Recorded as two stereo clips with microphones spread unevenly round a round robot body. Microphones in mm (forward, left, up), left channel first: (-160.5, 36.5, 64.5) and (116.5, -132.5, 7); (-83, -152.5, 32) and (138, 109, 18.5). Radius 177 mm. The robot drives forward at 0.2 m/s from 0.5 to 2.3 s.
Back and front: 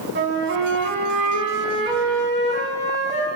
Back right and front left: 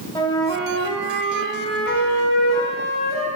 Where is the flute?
55° right, 0.8 m; by 3.3 s 95° right, 0.7 m.